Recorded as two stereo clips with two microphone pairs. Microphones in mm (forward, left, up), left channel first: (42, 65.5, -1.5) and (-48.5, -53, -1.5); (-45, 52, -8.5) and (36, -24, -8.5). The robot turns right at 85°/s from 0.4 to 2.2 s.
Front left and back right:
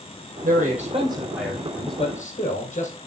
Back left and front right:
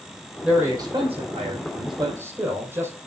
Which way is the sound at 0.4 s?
130° right.